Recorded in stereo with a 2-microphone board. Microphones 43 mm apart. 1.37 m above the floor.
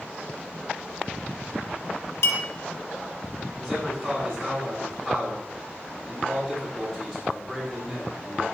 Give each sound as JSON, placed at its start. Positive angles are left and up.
{"t": 2.2, "sound": "a clink", "side_deg": 70, "distance_m": 1.8}
{"t": 3.6, "sound": "a man speaking", "side_deg": 15, "distance_m": 6.0}